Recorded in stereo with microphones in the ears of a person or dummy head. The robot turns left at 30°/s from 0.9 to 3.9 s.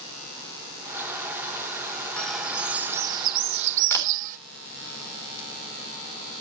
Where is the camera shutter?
10° left (ahead or behind), 3 m.